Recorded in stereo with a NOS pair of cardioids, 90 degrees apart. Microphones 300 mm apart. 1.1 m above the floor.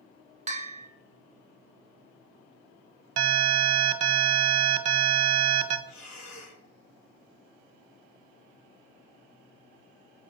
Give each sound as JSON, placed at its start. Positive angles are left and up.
{"t": 0.5, "sound": "a bell", "azimuth_deg": -25, "distance_m": 0.6}
{"t": 3.2, "sound": "an alarm", "azimuth_deg": -70, "distance_m": 0.7}
{"t": 5.9, "sound": "breathing", "azimuth_deg": 70, "distance_m": 1.1}